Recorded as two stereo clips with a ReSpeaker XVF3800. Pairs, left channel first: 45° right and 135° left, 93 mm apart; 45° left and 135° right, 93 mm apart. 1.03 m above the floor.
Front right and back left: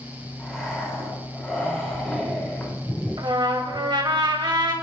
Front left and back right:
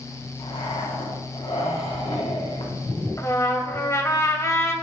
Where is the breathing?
45° left, 4 m.